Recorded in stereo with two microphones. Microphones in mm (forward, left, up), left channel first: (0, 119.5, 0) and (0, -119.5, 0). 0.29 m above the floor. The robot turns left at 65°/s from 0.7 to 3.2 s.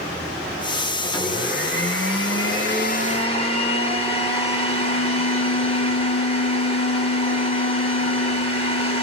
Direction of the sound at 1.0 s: 165° left.